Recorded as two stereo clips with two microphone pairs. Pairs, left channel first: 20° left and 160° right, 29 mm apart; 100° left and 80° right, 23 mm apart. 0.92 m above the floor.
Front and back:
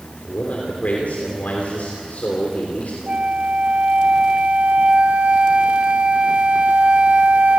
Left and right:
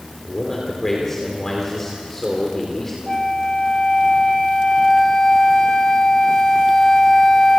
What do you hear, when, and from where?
0.2 s a man speaking: 25° left, 3 m
3.1 s a flute: 160° left, 1.0 m